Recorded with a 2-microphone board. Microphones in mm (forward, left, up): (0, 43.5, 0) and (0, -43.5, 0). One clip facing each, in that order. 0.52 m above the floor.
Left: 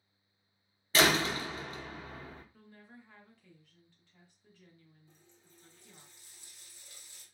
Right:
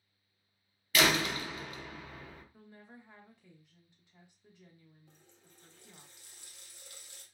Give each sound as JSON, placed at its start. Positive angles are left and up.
{"t": 0.9, "sound": "a door slam", "side_deg": 30, "distance_m": 0.6}
{"t": 2.5, "sound": "a woman speaking", "side_deg": -20, "distance_m": 0.7}
{"t": 5.1, "sound": "a running tap", "side_deg": -60, "distance_m": 0.7}